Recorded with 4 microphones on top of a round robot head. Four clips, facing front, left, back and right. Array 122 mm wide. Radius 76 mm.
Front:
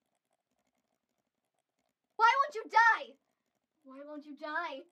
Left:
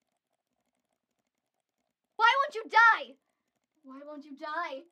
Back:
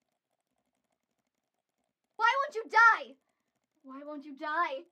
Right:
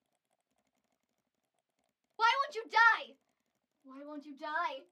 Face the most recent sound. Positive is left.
turn(degrees=170)